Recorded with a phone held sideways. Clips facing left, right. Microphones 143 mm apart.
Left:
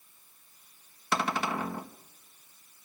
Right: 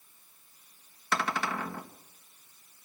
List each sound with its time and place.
1.1 s a cupboard door: 20° left (ahead or behind), 1.0 m